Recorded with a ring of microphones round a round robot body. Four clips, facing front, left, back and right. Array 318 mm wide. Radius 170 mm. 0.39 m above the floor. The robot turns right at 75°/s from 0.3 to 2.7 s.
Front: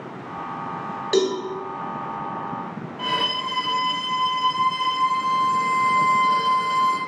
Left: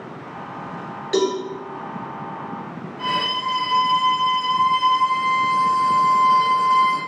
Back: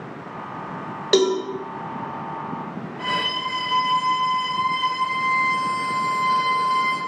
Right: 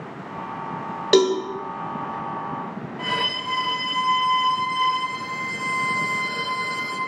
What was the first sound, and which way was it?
A cowbell, 115° right.